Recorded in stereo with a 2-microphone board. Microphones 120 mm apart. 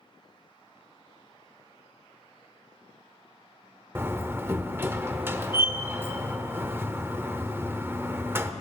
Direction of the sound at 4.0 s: 20° right (ahead or behind).